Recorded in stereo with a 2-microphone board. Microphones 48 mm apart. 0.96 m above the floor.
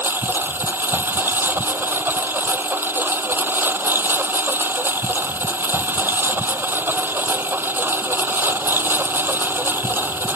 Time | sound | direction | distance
0.0 | a lawn mower | 45° right (ahead or behind) | ?